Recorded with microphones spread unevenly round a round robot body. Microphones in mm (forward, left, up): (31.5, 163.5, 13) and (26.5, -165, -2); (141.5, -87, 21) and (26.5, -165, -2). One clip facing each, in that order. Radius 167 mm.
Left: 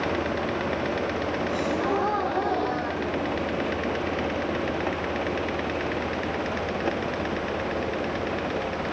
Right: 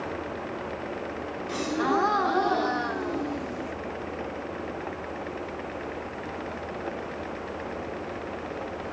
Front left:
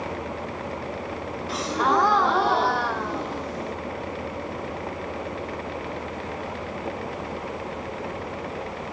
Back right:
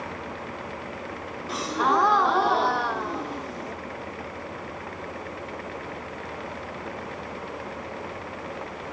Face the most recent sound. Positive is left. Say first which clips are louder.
# right 2 dB, front left 1 dB
turn(degrees=-65)